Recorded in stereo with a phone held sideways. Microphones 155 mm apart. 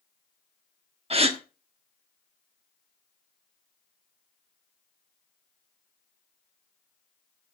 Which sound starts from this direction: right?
A gasp, at 1.1 s.